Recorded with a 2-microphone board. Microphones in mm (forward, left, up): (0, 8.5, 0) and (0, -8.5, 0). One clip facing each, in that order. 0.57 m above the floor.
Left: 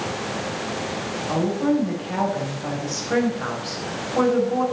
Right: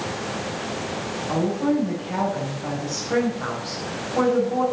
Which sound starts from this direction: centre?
A woman speaking, at 1.3 s.